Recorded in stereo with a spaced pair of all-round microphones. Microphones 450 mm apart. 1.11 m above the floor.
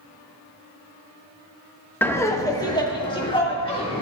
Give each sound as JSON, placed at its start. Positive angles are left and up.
{"t": 2.0, "sound": "laughter", "side_deg": 5, "distance_m": 0.8}